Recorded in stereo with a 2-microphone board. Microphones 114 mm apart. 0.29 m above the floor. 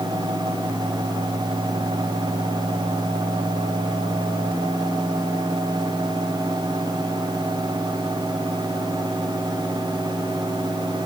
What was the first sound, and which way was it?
Only background noise.